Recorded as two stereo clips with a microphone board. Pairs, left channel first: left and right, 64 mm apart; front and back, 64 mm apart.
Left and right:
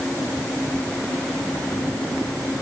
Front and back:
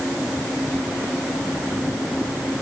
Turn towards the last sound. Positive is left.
No sound to turn to.